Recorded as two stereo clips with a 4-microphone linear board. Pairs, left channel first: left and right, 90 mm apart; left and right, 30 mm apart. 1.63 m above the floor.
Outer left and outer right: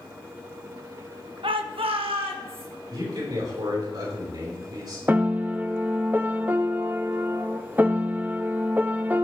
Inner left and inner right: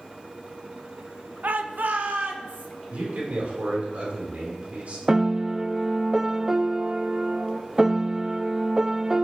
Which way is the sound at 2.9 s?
50° right (ahead or behind).